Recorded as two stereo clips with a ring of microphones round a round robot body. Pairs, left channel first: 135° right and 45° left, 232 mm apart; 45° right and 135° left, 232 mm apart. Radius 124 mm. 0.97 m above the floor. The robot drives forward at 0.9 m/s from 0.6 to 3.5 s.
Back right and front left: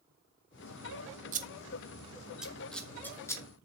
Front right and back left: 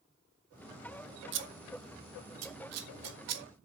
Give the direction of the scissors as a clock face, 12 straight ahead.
9 o'clock.